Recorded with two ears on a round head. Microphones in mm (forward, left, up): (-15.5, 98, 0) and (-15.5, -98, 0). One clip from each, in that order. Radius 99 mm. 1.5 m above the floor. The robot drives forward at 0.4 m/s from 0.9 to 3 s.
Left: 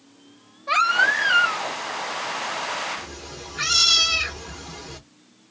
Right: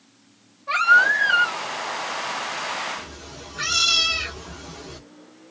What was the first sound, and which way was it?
A baby crying, 30° left (ahead or behind).